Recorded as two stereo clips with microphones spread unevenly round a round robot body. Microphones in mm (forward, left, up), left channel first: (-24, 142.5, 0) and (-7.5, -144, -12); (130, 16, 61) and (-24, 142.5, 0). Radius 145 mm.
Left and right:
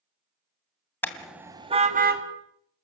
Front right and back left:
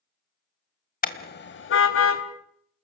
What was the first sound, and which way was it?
A car horn, 10° left.